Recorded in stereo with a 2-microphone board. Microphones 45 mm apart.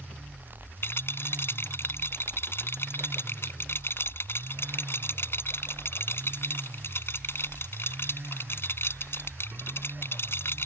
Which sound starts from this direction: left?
A rattle, at 0.8 s.